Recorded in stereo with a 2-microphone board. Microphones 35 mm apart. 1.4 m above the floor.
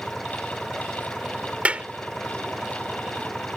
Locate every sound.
0.0 s an engine running: 10° left (ahead or behind)
1.6 s a clap: 40° right (ahead or behind)